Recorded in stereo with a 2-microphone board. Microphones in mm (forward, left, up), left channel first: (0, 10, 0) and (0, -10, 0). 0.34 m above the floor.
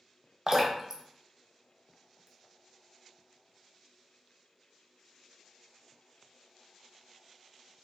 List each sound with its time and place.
0.5 s dripping: 25° right (ahead or behind), 0.5 m